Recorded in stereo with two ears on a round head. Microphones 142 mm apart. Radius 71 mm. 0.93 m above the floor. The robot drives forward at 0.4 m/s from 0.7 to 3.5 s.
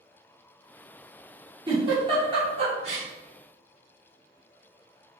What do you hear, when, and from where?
1.7 s a giggle: 30° right (ahead or behind), 1.8 m; by 3.1 s 40° right (ahead or behind), 1.4 m